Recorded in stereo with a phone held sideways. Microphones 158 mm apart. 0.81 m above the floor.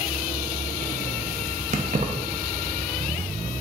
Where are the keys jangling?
50° right (ahead or behind), 0.5 m.